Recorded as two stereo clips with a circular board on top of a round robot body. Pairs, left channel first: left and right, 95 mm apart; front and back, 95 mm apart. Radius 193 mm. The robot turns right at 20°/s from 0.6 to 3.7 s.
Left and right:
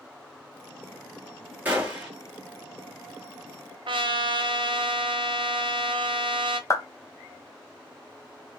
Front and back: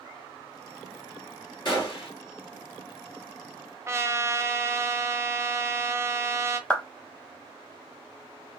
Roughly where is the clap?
Left.